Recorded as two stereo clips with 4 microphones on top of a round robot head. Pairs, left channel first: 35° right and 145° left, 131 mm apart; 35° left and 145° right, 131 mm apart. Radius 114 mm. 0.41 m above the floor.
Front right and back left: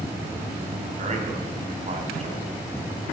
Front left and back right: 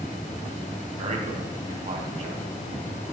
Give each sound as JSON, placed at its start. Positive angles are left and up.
{"t": 1.0, "sound": "a man speaking", "azimuth_deg": 180, "distance_m": 4.0}